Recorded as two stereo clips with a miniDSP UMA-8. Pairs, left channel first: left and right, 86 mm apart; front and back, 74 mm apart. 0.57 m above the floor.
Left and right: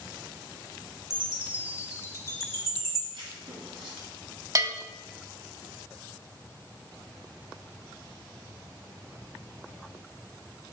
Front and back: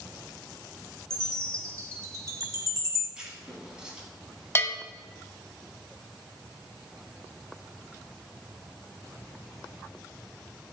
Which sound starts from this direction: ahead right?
A bell, at 4.5 s.